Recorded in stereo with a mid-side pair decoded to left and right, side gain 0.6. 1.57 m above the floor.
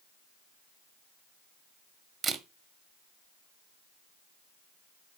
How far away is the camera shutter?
About 1.4 m.